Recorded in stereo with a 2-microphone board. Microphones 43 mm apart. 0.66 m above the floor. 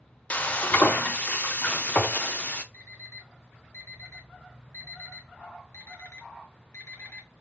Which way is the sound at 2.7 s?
75° left (ahead or behind).